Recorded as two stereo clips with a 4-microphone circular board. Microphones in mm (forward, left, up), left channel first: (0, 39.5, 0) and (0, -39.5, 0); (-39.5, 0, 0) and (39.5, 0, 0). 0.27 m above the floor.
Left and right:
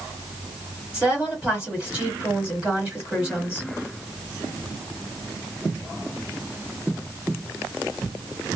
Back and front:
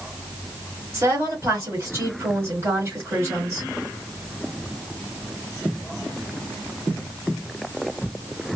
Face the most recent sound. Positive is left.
turn(degrees=-25)